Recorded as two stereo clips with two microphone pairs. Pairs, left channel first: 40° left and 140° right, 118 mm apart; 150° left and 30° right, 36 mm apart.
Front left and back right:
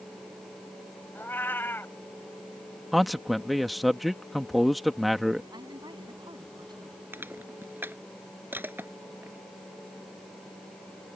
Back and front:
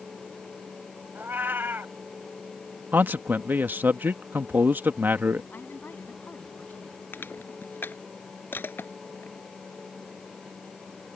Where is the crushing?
145° left.